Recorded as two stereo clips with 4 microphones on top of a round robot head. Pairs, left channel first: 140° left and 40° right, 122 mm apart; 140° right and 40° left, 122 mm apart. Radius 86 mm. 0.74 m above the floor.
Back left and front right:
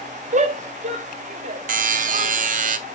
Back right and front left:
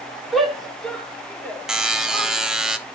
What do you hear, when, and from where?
0.3 s a shout: 45° right, 2.5 m; by 2.3 s 75° right, 3.5 m
1.7 s a buzzer: 45° right, 1.3 m